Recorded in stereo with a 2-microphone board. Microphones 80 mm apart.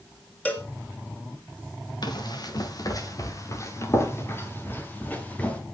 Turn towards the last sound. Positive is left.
turn(degrees=15)  # may be behind; listen again after turning